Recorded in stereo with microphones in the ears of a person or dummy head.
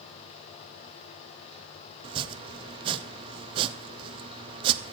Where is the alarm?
I don't hear an alarm.